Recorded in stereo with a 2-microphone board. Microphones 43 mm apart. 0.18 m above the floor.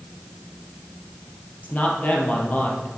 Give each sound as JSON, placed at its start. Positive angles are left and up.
{"t": 1.6, "sound": "a man speaking", "side_deg": 40, "distance_m": 4.0}